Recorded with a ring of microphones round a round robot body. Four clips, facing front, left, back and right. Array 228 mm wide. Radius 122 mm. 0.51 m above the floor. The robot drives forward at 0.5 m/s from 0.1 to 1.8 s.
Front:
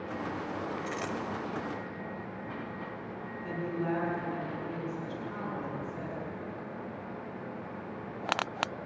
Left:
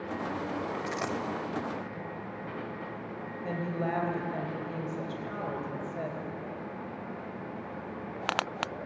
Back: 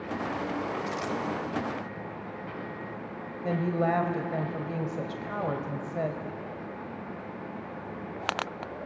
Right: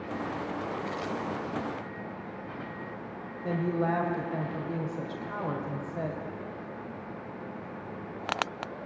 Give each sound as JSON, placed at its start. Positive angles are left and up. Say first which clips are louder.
{"t": 0.9, "sound": "a dropped coin", "louder": "left 1 dB, back 3 dB", "azimuth_deg": 80, "distance_m": 1.4}
{"t": 3.4, "sound": "a woman speaking", "louder": "right 5 dB, back 7 dB", "azimuth_deg": -175, "distance_m": 2.5}